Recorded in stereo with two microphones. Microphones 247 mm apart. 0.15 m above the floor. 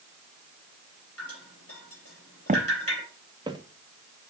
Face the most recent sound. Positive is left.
turn(degrees=-15)  # may be behind; listen again after turning